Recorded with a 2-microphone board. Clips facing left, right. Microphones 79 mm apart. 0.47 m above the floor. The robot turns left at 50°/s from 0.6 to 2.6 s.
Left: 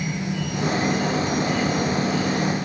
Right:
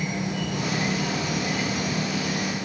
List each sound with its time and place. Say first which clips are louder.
0.0 s an insect: left 1 dB; 70° right, 5 m; by 2.6 s 170° right, 5 m